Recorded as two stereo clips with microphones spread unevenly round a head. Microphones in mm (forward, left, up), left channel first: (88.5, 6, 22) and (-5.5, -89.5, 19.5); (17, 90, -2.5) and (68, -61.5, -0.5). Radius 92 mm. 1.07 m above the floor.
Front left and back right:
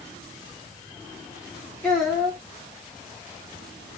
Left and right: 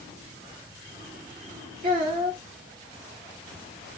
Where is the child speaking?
30° right, 1.9 m.